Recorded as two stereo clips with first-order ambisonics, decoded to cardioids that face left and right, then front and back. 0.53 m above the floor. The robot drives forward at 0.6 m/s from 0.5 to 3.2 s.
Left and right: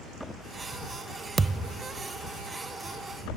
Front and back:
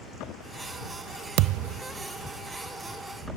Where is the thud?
160° right; by 1.9 s 170° right.